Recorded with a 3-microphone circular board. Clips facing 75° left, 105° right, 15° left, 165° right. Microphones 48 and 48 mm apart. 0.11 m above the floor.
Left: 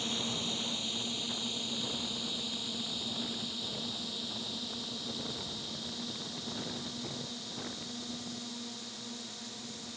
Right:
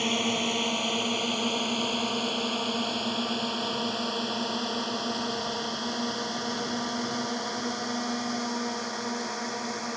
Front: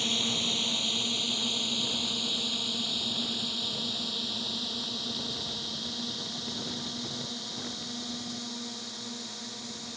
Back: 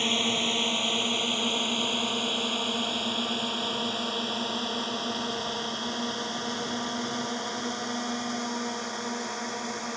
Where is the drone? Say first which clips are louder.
Right 10 dB, back 4 dB; 120° right; by 10.0 s 130° right.